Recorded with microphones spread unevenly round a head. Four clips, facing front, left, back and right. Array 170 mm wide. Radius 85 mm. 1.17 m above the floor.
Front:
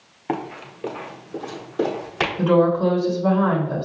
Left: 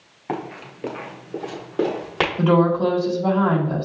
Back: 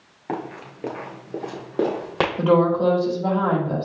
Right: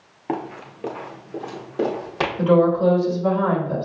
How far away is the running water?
I don't hear running water.